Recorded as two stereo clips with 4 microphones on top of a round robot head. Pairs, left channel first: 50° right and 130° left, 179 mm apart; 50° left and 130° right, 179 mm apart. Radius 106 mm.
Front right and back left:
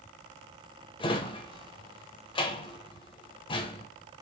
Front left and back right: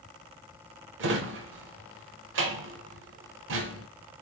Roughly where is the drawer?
Behind right.